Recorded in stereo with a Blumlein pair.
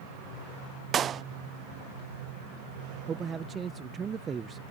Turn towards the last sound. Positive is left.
turn(degrees=-20)